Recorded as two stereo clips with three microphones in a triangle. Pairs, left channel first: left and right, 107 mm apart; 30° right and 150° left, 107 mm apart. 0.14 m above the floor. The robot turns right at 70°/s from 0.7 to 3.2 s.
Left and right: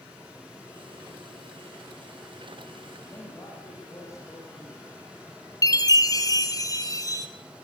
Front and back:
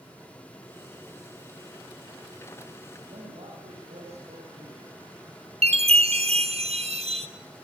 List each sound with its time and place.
3.1 s a man speaking: 145° left, 7.5 m; by 4.9 s 150° left, 7.5 m
5.6 s a chime: 145° left, 1.8 m